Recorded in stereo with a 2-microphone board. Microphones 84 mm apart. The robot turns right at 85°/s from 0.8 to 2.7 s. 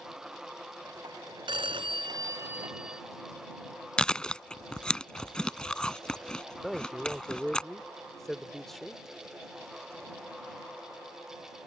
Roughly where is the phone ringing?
Right.